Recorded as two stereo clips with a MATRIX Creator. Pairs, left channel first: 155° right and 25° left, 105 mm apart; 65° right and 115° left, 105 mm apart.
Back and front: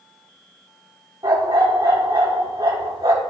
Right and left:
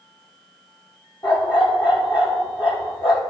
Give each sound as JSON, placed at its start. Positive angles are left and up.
{"t": 1.2, "sound": "a dog barking", "azimuth_deg": -35, "distance_m": 1.9}